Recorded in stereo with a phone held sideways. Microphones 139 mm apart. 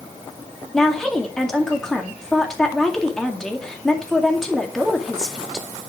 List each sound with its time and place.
0.7 s a woman speaking: 5° left (ahead or behind), 2 m